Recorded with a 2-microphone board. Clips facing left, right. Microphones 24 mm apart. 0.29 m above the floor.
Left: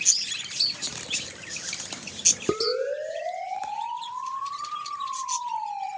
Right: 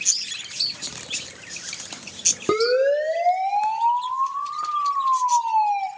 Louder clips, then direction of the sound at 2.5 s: Right 7 dB; 65° right (ahead or behind).